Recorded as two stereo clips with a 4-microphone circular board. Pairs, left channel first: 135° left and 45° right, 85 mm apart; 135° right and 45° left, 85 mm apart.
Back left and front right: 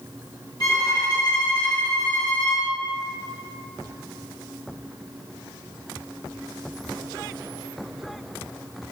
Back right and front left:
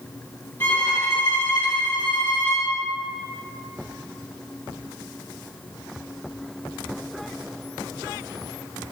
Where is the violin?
165° left, 3 m.